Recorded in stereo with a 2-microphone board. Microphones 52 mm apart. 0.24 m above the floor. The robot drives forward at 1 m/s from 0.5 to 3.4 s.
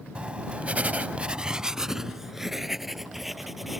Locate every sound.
0.1 s writing: 25° right (ahead or behind); by 3.8 s 5° right (ahead or behind)